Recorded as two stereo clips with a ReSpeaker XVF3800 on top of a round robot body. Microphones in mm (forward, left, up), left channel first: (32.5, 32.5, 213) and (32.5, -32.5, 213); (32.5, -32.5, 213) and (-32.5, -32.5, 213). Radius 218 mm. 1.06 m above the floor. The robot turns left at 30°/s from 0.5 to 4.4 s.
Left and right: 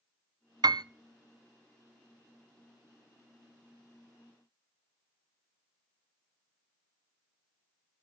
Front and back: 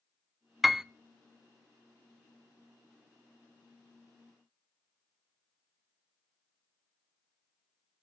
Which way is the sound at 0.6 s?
90° right.